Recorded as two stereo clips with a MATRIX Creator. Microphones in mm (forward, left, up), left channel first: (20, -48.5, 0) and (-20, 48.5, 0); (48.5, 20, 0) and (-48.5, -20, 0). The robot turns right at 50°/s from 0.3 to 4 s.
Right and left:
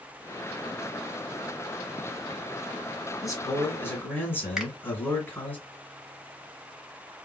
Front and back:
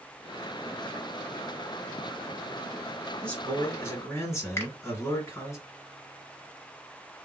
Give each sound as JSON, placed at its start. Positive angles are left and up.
{"t": 3.2, "sound": "a man speaking", "azimuth_deg": -50, "distance_m": 1.9}
{"t": 4.6, "sound": "a finger snap", "azimuth_deg": 35, "distance_m": 1.1}